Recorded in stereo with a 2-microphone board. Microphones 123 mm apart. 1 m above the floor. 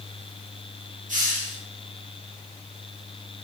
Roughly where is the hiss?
Right.